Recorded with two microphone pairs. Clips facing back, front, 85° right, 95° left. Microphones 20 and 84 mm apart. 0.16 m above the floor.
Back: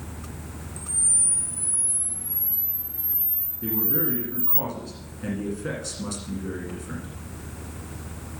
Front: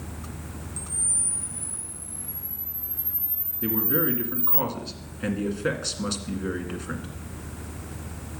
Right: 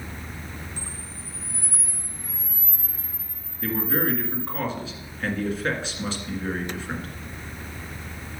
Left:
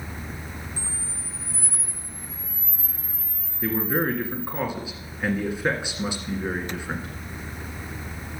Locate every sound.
0.8 s a camera shutter: 15° left, 0.9 m
3.6 s a man speaking: 25° left, 1.8 m